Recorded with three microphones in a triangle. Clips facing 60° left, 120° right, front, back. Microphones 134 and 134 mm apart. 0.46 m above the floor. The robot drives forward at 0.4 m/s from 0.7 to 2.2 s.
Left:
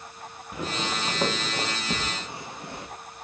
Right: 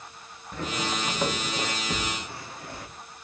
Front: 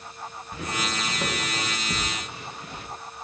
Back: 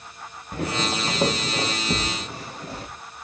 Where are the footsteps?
140° left, 3 m; by 2.9 s 125° left, 5.5 m.